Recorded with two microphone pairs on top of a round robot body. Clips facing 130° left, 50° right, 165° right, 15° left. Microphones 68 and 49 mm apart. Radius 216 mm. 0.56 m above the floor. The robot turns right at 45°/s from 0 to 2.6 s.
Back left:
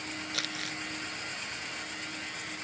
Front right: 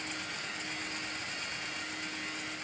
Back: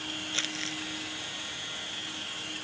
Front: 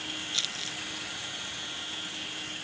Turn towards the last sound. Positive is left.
turn(degrees=-120)